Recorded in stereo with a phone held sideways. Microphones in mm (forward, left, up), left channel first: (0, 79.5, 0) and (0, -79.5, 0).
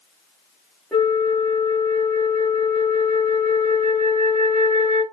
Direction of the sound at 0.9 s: 5° left (ahead or behind).